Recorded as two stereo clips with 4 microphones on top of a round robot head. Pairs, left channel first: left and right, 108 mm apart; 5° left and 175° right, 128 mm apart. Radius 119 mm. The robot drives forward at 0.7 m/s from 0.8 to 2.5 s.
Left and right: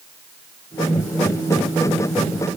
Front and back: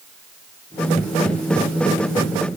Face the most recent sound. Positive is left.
No sound to turn to.